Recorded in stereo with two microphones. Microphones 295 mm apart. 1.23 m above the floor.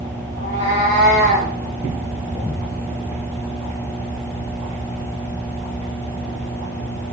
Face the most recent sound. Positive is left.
turn(degrees=25)  # may be behind; listen again after turning